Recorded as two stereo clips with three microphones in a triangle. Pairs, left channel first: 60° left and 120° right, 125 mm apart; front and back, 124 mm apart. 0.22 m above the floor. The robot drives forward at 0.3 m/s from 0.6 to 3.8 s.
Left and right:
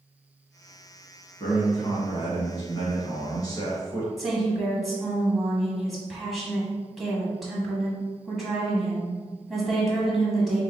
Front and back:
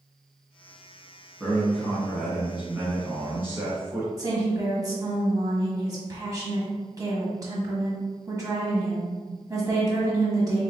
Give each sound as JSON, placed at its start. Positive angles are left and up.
{"t": 1.4, "sound": "a man speaking", "azimuth_deg": 90, "distance_m": 1.9}
{"t": 4.2, "sound": "a woman speaking", "azimuth_deg": 150, "distance_m": 1.3}